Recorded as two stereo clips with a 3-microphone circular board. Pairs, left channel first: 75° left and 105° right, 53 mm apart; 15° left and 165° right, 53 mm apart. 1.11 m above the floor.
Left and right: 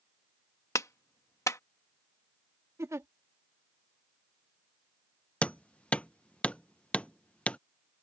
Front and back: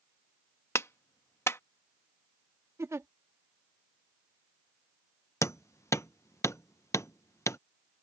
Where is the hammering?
10° left.